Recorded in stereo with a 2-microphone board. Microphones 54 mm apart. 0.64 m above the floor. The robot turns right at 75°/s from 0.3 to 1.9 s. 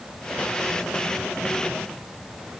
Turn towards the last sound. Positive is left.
No sound to turn to.